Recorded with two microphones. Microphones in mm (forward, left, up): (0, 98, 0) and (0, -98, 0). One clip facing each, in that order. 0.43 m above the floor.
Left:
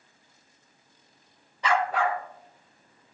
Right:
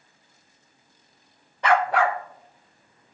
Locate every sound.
1.6 s a dog barking: 60° right (ahead or behind), 0.6 m; by 3.1 s 70° right (ahead or behind), 1.6 m